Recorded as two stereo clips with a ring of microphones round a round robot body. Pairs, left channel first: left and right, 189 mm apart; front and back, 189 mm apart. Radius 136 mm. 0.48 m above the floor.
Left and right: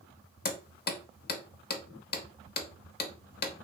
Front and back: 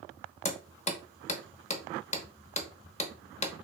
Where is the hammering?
55° left, 0.9 m.